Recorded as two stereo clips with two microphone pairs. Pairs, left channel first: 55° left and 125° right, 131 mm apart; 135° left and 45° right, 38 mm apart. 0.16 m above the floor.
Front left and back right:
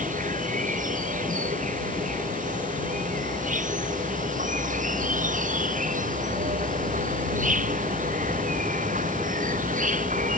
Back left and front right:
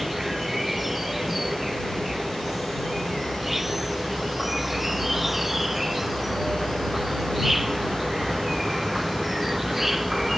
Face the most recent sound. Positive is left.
turn(degrees=-130)